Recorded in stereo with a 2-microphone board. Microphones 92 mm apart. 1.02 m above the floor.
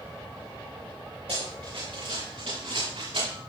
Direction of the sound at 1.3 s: 80° right.